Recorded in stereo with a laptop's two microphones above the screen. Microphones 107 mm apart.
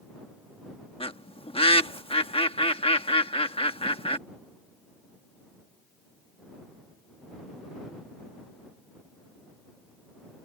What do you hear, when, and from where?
1.0 s a bird: 60° left (ahead or behind)